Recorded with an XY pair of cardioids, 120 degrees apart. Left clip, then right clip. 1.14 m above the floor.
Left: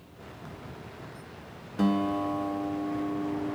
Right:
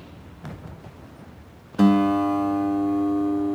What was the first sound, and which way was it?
A guitar, 45° right.